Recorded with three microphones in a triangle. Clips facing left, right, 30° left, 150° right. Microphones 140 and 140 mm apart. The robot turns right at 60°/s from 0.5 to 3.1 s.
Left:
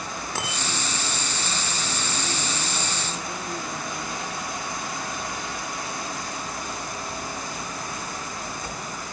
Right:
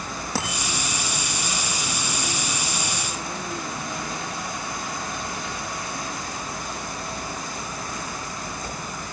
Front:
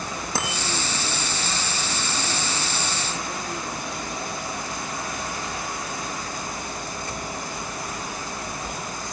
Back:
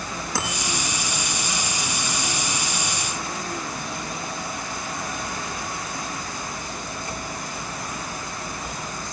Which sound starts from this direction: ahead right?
A bicycle bell, at 0.3 s.